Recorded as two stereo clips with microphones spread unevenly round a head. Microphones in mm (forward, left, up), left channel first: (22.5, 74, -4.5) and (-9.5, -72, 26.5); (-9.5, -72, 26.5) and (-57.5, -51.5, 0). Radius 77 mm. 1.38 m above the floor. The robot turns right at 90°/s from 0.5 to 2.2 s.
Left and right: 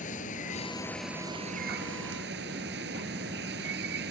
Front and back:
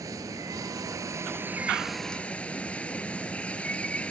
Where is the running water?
120° left; by 4.1 s 85° right.